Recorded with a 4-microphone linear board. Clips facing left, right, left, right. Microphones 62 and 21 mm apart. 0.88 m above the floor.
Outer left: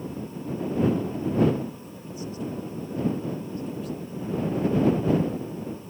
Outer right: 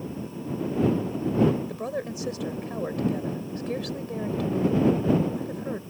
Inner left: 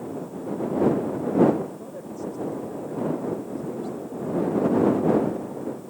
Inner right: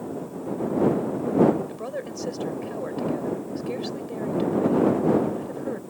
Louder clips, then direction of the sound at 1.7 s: Outer right 9 dB, inner right 4 dB; 80° right.